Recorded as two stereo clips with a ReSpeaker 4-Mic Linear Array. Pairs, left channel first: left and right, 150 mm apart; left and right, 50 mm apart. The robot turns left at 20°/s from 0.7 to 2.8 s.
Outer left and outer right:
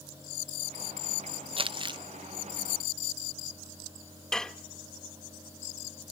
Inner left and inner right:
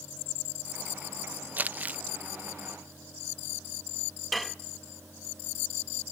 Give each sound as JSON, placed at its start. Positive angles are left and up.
{"t": 1.6, "sound": "crumpling", "side_deg": -35, "distance_m": 0.7}
{"t": 4.3, "sound": "dishes clattering", "side_deg": 5, "distance_m": 0.7}